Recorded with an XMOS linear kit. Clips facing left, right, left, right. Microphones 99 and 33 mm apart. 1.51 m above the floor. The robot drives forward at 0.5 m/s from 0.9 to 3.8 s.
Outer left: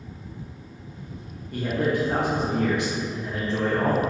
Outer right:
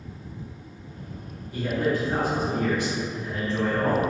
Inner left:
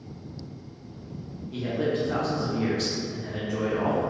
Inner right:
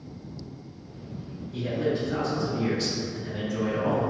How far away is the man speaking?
About 1.1 m.